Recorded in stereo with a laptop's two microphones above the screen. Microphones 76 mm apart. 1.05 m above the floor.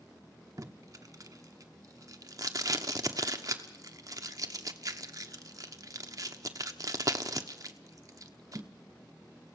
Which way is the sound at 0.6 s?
50° right (ahead or behind).